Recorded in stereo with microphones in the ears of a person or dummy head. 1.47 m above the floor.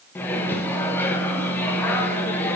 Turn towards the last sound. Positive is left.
turn(degrees=10)  # may be behind; listen again after turning